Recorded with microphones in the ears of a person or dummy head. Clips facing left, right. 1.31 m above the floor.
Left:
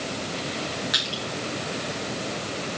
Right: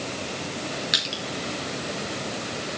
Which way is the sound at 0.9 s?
20° right (ahead or behind).